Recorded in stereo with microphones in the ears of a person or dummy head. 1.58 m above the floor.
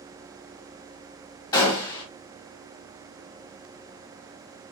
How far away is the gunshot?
About 1.5 m.